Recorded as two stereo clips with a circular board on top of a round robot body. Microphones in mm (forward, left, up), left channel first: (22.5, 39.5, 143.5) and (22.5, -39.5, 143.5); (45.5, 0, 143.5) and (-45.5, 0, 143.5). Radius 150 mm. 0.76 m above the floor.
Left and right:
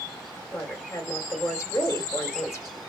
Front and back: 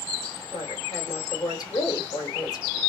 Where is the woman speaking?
40° left, 2 m.